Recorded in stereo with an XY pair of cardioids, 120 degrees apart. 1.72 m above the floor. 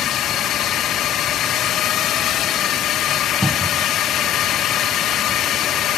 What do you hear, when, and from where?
0.0 s a drone: 65° left
3.4 s a cupboard door: 10° right